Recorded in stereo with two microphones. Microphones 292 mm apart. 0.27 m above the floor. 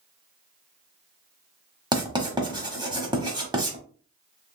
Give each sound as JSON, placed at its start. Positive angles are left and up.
{"t": 1.9, "sound": "writing", "side_deg": -15, "distance_m": 1.1}